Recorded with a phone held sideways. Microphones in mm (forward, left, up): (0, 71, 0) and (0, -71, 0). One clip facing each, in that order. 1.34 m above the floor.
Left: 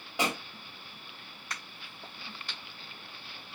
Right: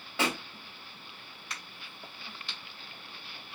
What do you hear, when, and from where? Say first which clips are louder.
0.2 s a pop: even; 15° left (ahead or behind), 2.0 m
1.5 s a crack: left 2 dB; 45° left (ahead or behind), 2.5 m